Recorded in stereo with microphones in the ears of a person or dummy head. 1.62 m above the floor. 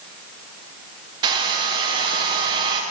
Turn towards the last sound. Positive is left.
turn(degrees=-20)  # may be behind; listen again after turning